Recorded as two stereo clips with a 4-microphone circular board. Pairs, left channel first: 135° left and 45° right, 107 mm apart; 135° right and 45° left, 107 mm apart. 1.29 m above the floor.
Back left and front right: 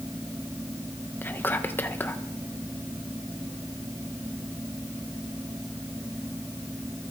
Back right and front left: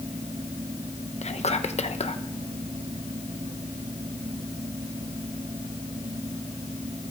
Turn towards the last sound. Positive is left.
turn(degrees=-155)